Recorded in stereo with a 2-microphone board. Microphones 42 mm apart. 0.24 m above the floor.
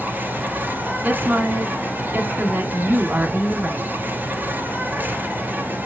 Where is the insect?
40° right (ahead or behind), 1.8 m.